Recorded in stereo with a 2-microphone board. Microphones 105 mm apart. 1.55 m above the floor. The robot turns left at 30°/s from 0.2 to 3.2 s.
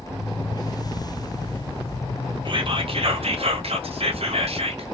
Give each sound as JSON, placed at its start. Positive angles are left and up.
{"t": 2.5, "sound": "whispering", "side_deg": -50, "distance_m": 1.1}